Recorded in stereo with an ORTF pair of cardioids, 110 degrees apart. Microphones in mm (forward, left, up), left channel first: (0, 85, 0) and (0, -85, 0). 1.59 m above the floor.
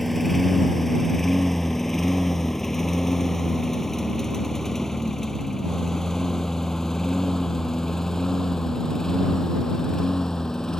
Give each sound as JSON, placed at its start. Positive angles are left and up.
{"t": 0.0, "sound": "a lawn mower", "azimuth_deg": 0}